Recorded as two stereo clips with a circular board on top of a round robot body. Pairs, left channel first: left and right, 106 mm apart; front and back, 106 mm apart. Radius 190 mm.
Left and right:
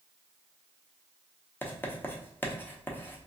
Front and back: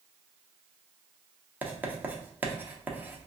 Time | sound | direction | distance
1.6 | writing | 130° left | 1.1 m